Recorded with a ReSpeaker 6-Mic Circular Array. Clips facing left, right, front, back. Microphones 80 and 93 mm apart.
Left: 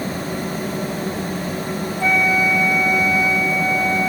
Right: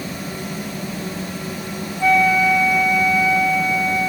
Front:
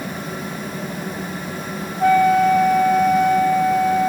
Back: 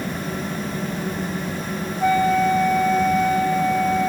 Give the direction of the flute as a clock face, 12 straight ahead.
11 o'clock.